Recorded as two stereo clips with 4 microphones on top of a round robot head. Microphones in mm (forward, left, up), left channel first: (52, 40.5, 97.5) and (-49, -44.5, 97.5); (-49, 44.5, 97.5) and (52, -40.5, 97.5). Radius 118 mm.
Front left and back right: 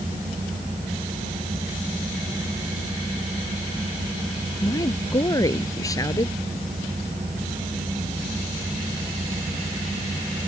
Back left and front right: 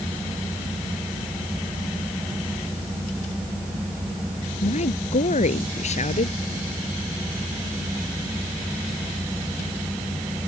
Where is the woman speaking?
105° left.